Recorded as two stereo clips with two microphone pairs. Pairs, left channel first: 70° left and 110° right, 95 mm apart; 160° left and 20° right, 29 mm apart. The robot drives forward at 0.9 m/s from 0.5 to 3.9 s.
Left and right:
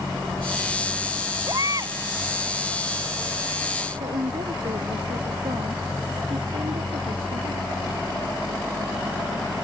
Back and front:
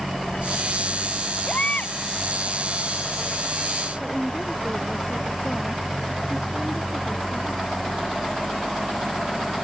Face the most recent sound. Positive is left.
turn(degrees=-115)